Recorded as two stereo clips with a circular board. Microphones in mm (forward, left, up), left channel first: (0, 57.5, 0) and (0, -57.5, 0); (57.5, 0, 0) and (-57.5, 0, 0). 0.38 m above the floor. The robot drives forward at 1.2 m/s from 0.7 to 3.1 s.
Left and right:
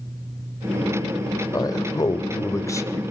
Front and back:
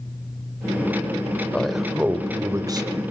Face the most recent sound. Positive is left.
turn(degrees=150)